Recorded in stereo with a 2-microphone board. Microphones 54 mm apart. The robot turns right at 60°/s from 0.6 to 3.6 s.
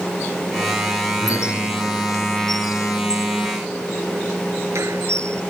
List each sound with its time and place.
1.2 s a squeak: 80° left; by 5.4 s 65° right (ahead or behind)